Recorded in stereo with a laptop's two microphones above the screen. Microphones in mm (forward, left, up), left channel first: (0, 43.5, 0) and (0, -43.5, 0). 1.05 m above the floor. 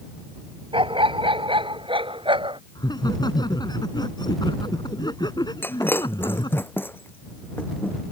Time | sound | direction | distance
0.7 | a dog barking | 85° right | ?
2.8 | laughter | 50° left (ahead or behind) | ?
5.6 | breaking glass | 25° left (ahead or behind) | ?